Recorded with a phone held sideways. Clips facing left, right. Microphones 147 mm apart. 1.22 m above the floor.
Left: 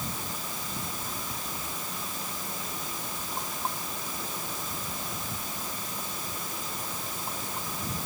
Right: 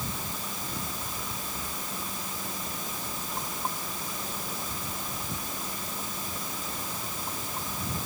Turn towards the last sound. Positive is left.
No sound to turn to.